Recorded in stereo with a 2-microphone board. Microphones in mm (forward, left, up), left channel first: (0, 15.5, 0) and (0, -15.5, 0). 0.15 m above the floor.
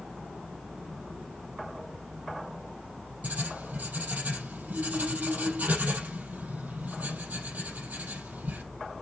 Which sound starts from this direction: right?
Writing, at 3.2 s.